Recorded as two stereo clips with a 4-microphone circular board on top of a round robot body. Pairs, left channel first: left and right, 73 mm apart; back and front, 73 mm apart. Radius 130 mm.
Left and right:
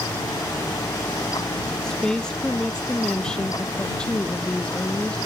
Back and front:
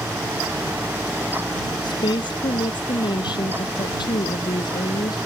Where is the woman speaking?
170° left; by 5.2 s 165° left.